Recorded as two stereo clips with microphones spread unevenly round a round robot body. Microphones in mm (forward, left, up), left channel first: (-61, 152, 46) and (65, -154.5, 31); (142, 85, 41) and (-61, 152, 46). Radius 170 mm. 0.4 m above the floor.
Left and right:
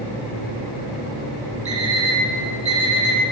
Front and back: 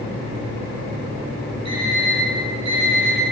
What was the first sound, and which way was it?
An alarm clock, 140° right.